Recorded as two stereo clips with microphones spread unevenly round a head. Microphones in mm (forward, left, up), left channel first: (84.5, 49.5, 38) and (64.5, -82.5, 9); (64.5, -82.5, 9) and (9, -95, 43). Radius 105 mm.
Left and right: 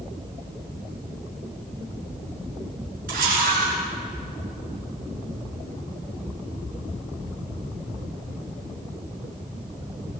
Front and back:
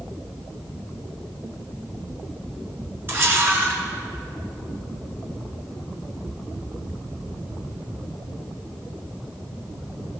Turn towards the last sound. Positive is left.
turn(degrees=-135)